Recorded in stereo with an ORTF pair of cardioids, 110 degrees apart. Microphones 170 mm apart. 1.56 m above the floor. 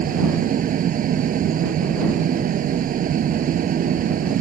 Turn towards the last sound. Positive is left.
turn(degrees=-55)